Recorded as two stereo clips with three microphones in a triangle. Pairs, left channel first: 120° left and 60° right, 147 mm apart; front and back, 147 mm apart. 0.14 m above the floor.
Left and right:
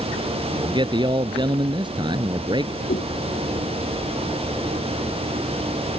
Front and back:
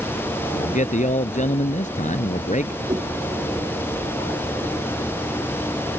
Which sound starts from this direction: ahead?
A man speaking, at 0.5 s.